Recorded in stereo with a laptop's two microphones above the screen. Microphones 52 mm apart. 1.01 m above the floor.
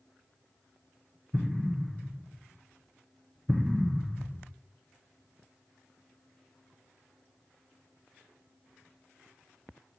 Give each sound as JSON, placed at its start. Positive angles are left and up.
{"t": 1.3, "sound": "an explosion", "side_deg": -5, "distance_m": 0.7}